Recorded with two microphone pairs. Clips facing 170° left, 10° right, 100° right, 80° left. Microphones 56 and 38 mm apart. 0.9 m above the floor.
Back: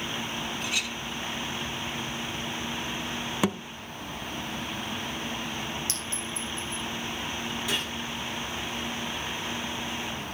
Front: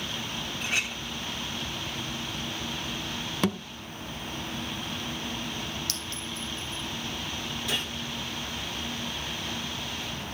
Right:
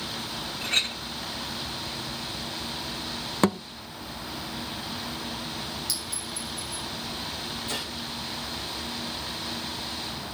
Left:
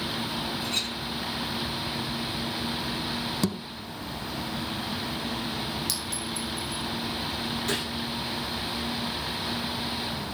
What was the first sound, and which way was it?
A clink, 65° right.